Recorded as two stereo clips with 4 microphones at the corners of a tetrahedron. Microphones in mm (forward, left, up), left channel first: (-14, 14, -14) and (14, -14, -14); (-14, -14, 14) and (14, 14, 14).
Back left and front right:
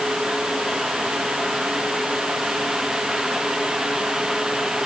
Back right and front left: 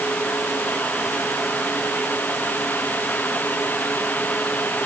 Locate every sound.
Only background noise.